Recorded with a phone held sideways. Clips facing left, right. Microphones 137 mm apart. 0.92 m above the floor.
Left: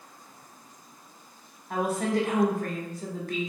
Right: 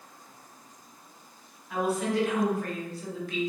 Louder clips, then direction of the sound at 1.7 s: Left 1 dB; 45° left (ahead or behind).